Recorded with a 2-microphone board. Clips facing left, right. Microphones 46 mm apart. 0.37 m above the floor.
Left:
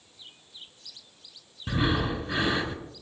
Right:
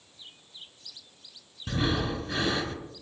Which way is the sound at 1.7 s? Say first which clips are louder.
Left 2 dB; 10° left (ahead or behind).